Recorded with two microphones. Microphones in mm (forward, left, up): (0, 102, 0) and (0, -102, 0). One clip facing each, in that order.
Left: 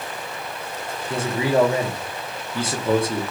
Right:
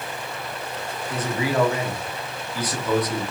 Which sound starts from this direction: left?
A man speaking, at 1.1 s.